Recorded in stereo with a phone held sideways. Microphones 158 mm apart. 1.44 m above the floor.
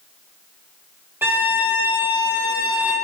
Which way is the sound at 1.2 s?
15° right (ahead or behind).